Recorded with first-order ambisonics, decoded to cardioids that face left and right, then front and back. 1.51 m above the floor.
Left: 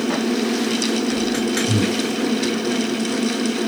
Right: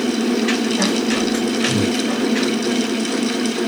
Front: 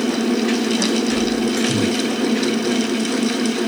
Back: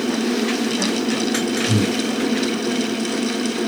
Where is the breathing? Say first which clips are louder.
Right 2 dB, front 1 dB; 145° left, 2 m.